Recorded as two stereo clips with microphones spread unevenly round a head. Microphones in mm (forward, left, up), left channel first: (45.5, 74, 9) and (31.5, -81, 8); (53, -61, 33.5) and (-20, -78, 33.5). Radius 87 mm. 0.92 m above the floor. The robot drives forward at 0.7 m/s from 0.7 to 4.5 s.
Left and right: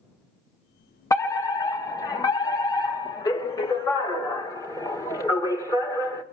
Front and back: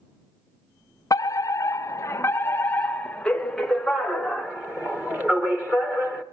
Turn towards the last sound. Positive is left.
turn(degrees=135)